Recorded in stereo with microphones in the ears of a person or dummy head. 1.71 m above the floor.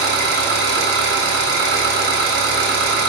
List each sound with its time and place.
0.0 s an engine running: 65° right (ahead or behind), 3 m